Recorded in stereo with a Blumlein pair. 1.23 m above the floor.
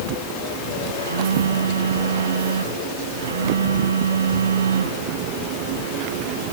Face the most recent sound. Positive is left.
turn(degrees=-70)